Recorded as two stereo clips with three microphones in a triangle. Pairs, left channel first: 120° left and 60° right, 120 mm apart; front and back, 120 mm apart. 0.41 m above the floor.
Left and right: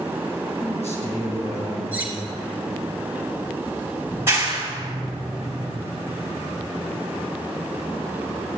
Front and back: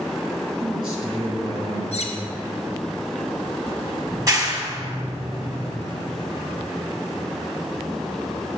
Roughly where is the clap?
Behind right.